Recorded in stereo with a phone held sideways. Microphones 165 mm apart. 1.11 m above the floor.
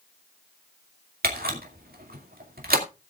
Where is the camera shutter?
65° right (ahead or behind), 2.5 m.